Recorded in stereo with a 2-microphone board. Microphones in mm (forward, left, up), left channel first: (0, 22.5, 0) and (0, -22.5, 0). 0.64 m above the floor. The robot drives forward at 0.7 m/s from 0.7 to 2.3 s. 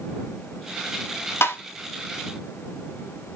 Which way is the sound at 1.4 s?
65° left (ahead or behind).